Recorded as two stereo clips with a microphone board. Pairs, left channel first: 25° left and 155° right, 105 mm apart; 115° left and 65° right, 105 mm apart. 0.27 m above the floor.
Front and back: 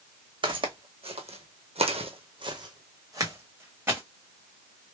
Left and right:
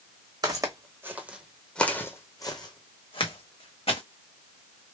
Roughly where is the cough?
No cough in this recording.